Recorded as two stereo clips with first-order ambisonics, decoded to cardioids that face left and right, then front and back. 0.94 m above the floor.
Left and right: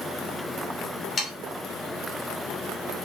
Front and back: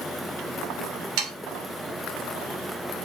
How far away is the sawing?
About 2.5 m.